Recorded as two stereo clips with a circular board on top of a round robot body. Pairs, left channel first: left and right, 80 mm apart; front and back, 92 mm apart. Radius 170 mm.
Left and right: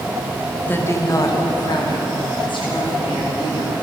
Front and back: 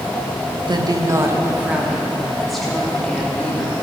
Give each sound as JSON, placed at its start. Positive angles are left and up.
{"t": 0.7, "sound": "a woman speaking", "azimuth_deg": 155, "distance_m": 1.5}